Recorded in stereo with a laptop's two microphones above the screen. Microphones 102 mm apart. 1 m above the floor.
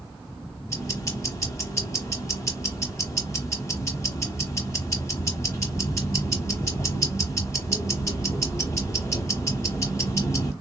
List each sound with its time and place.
0.7 s ticking: 30° left (ahead or behind), 1.1 m